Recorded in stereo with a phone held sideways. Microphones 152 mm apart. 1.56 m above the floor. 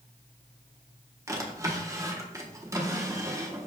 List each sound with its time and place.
1.3 s a drawer: 20° right (ahead or behind), 0.7 m